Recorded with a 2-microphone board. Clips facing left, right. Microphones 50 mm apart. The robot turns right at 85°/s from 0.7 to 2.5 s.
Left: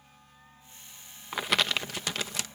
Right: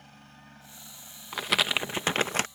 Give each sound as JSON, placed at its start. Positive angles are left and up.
{"t": 0.0, "sound": "a helicopter", "azimuth_deg": -70}
{"t": 1.3, "sound": "crumpling", "azimuth_deg": 165}